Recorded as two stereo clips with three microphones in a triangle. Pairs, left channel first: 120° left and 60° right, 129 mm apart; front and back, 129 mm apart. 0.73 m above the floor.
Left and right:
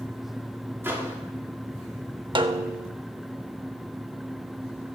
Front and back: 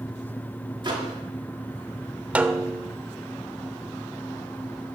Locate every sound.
0.8 s a microwave: 130° right, 1.5 m
2.4 s a snare drum: 100° right, 0.5 m